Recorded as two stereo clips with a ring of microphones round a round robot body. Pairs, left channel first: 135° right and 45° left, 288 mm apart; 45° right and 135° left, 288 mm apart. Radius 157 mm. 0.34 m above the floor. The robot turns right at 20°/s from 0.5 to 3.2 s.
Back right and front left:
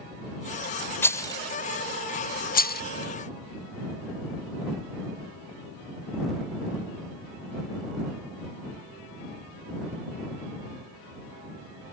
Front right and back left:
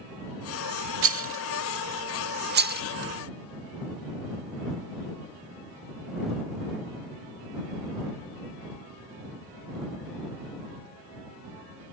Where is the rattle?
145° left; by 2.8 s straight behind.